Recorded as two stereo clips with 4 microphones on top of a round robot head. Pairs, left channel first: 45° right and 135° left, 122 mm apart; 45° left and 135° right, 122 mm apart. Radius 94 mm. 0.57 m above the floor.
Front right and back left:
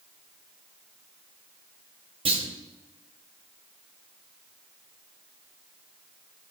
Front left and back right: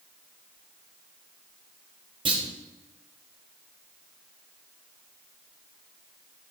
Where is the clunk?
175° left, 1.7 m.